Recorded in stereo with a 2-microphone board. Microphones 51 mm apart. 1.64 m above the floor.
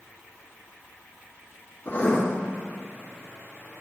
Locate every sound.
1.9 s writing: 40° left (ahead or behind), 1.4 m